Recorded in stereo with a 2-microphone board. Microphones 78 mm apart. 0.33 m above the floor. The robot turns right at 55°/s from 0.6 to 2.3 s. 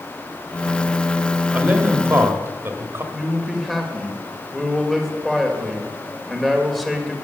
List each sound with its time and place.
1.5 s a man speaking: 140° right, 1.1 m; by 3.0 s 100° right, 1.1 m
3.1 s a man speaking: centre (ahead or behind), 1.5 m